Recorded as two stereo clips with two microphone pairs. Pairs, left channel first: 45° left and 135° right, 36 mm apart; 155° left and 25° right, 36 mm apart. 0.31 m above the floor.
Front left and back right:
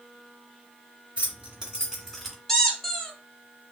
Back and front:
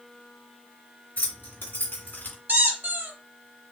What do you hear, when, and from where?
1.2 s keys jangling: 175° left, 2.5 m; by 2.4 s 130° left, 2 m
2.5 s a squeak: 35° right, 1.4 m